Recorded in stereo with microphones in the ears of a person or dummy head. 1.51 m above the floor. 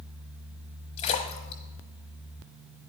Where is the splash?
40° left (ahead or behind), 1.2 m.